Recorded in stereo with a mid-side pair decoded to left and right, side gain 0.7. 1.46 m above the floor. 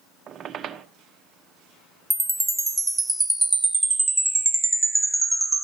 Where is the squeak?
35° right, 1.1 m.